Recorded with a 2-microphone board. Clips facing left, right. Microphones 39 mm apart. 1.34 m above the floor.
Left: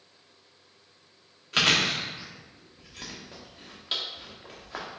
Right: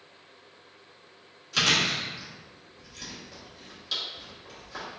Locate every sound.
1.5 s chewing: 40° left (ahead or behind), 0.9 m